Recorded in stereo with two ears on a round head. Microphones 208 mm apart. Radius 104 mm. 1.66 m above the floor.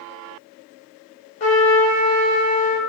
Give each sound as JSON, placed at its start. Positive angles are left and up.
{"t": 1.4, "sound": "a trumpet", "side_deg": 35, "distance_m": 2.5}